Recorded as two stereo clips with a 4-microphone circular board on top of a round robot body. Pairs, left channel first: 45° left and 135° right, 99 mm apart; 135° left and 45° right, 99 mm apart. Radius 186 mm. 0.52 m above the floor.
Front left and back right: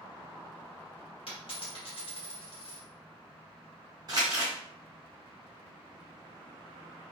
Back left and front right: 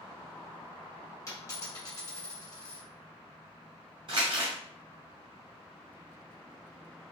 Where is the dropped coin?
80° left, 1.2 m.